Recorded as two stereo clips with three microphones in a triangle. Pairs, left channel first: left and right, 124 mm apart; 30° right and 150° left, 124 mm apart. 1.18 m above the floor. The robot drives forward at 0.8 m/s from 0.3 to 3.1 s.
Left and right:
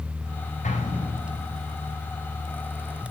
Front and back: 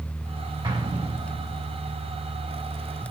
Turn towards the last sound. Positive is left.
turn(degrees=120)